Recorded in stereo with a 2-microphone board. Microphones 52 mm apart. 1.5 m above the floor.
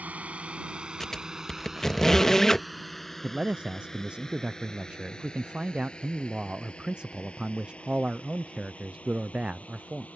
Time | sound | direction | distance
0.0 | a drone | 30° right (ahead or behind) | ?
1.0 | a squeak | 10° left (ahead or behind) | ?
3.2 | a man speaking | 20° right (ahead or behind) | ?